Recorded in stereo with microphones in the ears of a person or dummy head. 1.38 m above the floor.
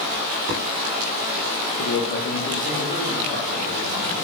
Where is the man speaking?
45° left (ahead or behind), 1.2 m; by 4.1 s 50° left (ahead or behind), 3.5 m.